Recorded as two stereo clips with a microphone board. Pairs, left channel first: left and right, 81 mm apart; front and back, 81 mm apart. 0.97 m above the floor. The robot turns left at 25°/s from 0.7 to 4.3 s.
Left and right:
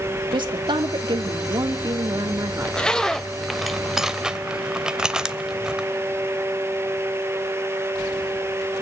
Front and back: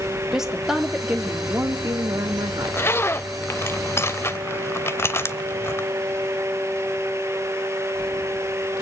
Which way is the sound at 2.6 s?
25° left.